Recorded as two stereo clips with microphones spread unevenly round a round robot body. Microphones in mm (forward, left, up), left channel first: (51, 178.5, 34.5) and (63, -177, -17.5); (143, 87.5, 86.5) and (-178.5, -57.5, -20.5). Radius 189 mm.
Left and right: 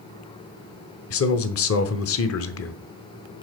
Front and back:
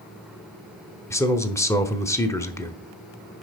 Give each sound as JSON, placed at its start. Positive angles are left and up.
{"t": 1.1, "sound": "a man speaking", "azimuth_deg": 125, "distance_m": 1.0}